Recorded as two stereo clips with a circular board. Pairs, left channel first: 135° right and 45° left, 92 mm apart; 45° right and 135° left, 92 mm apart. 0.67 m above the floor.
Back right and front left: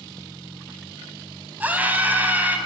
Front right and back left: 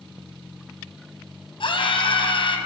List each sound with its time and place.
1.6 s a scream: 25° right, 5.5 m